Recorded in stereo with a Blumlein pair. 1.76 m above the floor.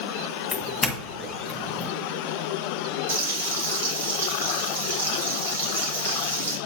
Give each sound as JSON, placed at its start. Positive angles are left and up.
{"t": 0.5, "sound": "a doorbell", "azimuth_deg": 15, "distance_m": 1.5}
{"t": 3.1, "sound": "frying", "azimuth_deg": -65, "distance_m": 3.0}